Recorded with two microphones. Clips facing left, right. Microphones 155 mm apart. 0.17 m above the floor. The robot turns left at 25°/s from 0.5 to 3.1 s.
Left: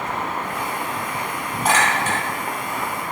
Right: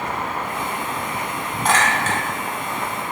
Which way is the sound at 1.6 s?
10° left (ahead or behind).